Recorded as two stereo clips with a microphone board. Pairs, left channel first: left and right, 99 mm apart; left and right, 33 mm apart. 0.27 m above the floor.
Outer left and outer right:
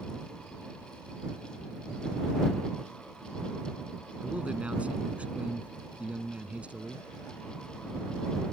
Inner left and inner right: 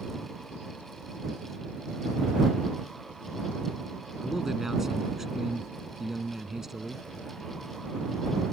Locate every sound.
4.2 s a man speaking: 15° right (ahead or behind)